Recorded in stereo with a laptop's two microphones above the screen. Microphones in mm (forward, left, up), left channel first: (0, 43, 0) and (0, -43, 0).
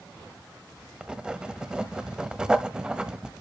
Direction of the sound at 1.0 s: 10° right (ahead or behind).